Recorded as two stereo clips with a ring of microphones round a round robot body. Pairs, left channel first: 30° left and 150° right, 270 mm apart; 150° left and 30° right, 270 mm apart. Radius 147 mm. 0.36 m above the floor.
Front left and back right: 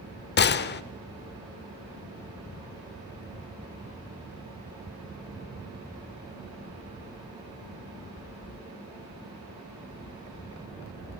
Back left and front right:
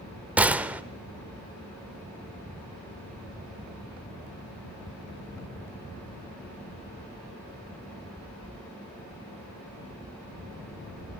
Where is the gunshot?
50° left, 0.7 m.